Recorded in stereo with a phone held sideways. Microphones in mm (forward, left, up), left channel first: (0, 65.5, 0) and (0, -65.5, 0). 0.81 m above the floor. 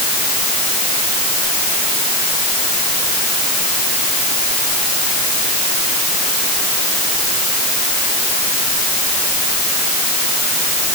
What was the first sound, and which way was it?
Only background noise.